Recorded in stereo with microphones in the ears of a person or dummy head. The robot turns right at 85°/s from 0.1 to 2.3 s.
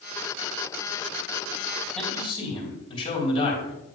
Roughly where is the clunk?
I don't hear a clunk.